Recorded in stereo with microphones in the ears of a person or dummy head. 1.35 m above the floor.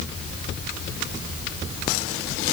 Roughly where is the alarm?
No alarm in this recording.